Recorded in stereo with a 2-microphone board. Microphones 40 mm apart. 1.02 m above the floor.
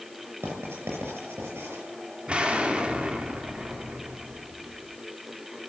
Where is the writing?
70° right (ahead or behind), 7 m.